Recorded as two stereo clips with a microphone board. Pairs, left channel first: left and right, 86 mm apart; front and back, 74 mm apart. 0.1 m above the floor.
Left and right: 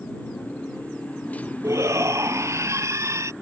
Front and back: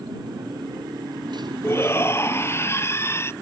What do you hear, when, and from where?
0.0 s a motorcycle: 165° left
1.6 s a shout: 45° right